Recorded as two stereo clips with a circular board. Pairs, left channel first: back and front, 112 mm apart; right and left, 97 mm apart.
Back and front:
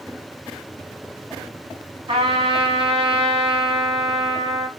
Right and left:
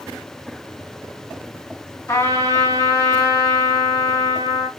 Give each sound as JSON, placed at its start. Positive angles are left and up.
{"t": 2.1, "sound": "a trumpet", "azimuth_deg": -25, "distance_m": 1.2}